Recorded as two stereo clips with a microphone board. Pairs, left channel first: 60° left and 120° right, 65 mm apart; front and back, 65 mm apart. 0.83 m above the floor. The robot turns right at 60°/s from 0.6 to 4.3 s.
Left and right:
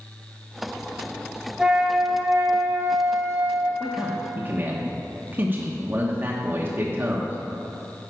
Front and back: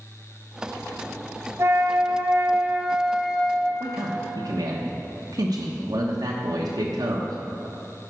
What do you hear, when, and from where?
1.6 s a flute: 165° left, 0.8 m; by 3.7 s 70° right, 0.8 m
3.8 s a man speaking: 150° left, 1.1 m; by 7.4 s straight behind, 1.1 m